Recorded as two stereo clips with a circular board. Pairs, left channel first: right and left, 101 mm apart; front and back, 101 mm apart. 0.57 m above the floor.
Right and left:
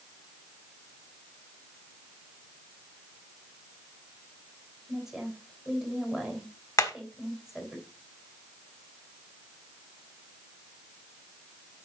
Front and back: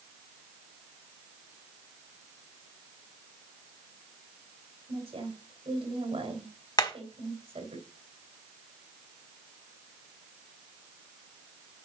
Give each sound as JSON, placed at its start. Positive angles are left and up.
{"t": 4.9, "sound": "a woman speaking", "azimuth_deg": 175, "distance_m": 3.0}
{"t": 6.8, "sound": "hammering", "azimuth_deg": -40, "distance_m": 1.2}